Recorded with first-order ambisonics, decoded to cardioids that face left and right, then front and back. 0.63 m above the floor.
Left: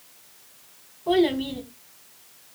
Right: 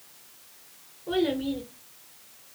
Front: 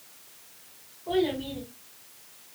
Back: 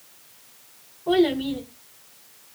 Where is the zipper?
I don't hear a zipper.